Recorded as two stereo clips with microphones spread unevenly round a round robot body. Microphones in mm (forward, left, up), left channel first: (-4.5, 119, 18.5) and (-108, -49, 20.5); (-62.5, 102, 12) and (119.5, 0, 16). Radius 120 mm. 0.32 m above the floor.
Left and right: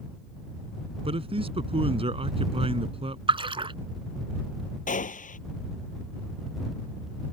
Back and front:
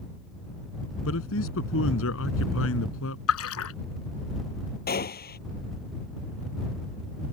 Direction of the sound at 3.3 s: 175° left.